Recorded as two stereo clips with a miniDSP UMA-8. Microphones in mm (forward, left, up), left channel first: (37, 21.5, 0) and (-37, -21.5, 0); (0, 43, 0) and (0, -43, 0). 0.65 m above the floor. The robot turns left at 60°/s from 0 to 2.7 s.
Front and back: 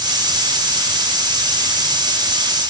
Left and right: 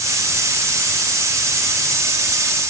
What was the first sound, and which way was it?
Only background noise.